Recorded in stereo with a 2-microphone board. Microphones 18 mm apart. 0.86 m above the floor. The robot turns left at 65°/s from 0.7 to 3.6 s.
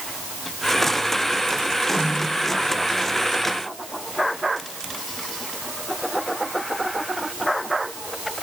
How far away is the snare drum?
About 7 m.